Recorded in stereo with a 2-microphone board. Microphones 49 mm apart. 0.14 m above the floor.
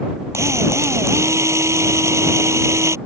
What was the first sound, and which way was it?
A drill, 70° right (ahead or behind).